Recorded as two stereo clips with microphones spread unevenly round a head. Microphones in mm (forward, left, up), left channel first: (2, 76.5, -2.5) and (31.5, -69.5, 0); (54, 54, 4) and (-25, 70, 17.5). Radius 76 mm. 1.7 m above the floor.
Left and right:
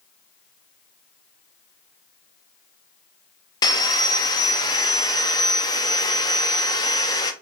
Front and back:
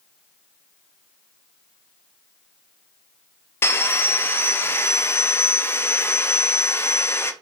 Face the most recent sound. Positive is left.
turn(degrees=45)